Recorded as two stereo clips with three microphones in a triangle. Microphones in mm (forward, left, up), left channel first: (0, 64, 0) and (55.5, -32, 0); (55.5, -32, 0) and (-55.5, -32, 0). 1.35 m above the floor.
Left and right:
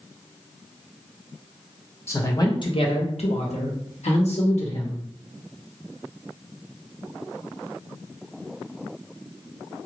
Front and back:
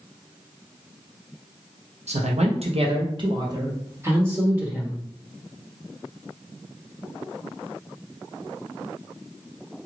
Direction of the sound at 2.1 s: 175° right.